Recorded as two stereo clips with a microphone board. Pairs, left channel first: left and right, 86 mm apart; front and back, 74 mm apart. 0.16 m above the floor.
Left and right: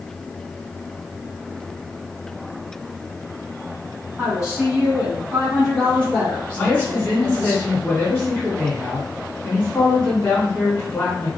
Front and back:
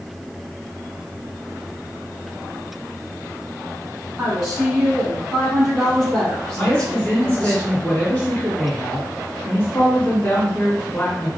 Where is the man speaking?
45° left, 1.6 m.